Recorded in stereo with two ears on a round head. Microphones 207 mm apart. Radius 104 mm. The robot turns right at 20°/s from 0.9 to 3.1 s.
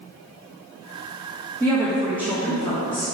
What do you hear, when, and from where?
1.6 s a woman speaking: 10° left (ahead or behind), 1.9 m; by 3.0 s 35° left (ahead or behind), 1.9 m